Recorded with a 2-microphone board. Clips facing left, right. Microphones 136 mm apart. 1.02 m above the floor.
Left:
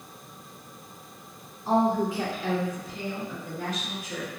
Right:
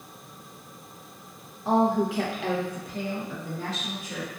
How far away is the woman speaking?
About 0.8 m.